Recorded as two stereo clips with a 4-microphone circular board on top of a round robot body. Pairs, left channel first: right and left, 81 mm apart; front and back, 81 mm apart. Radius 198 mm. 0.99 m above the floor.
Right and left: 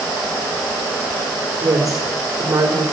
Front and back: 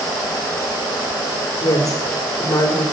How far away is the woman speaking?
About 4 m.